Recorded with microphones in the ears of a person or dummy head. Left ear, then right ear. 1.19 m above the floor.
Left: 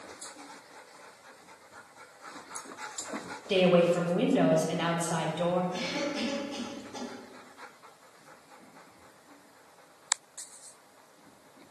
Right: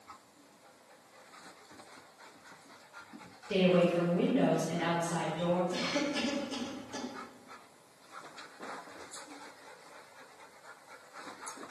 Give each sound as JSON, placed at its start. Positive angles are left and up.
{"t": 3.5, "sound": "a woman speaking", "side_deg": 35, "distance_m": 1.0}
{"t": 5.7, "sound": "a cough", "side_deg": -80, "distance_m": 1.5}